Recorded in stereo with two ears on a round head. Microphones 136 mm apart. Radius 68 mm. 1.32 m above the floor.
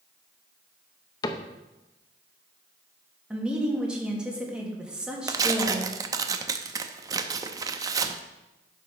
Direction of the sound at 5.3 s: 25° right (ahead or behind).